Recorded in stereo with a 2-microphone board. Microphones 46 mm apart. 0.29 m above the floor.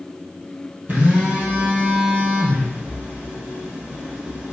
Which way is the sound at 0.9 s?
40° right (ahead or behind).